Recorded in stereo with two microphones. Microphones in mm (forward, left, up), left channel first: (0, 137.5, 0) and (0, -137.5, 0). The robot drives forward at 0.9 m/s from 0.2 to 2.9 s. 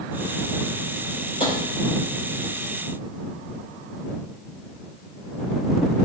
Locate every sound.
1.4 s tapping: 20° left (ahead or behind), 5 m